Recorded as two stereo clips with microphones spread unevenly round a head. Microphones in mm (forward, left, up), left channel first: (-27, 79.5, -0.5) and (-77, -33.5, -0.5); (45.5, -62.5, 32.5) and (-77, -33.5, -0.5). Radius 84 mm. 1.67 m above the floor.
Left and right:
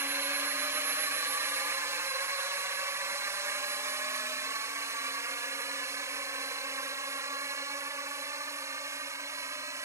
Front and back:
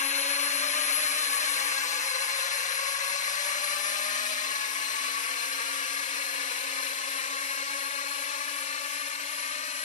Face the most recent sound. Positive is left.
turn(degrees=-40)